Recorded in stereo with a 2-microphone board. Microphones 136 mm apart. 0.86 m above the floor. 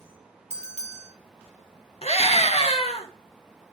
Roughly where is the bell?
Right.